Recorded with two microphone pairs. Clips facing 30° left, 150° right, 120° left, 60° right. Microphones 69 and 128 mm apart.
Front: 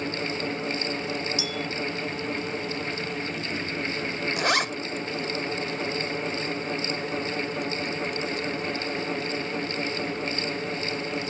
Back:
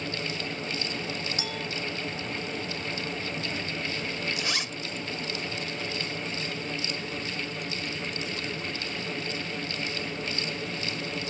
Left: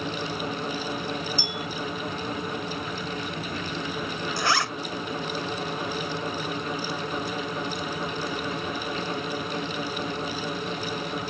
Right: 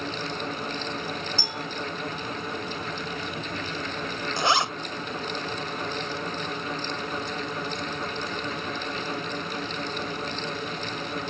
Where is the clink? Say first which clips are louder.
Front 3 dB, left 1 dB; 105° right.